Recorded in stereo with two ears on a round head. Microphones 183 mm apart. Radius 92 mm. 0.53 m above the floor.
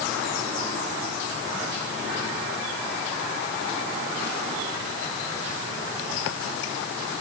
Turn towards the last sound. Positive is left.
No sound to turn to.